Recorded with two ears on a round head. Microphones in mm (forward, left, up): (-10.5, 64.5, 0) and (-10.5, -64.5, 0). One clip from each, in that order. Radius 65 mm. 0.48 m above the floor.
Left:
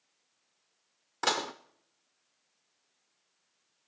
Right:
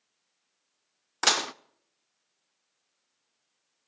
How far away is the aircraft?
No aircraft in this recording.